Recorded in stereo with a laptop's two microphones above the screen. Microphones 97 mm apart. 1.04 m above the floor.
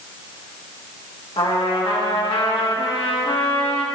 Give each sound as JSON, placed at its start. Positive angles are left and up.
{"t": 1.4, "sound": "a trumpet", "side_deg": 60, "distance_m": 1.5}